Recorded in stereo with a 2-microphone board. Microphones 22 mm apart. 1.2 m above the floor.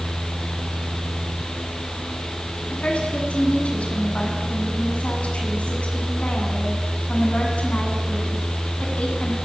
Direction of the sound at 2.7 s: 85° left.